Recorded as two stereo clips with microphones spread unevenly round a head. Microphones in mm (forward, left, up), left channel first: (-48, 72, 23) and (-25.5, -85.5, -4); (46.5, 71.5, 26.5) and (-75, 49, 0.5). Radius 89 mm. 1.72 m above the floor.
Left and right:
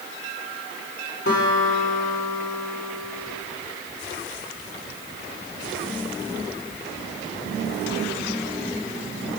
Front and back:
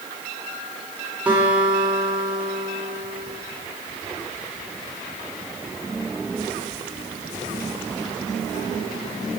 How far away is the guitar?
About 2 m.